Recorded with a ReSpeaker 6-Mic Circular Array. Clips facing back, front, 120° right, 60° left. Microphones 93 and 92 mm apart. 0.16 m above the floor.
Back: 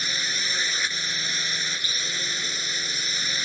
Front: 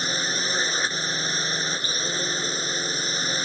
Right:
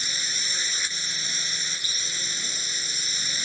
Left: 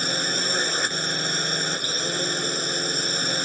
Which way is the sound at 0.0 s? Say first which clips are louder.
Front 4 dB, left 9 dB; 45° left.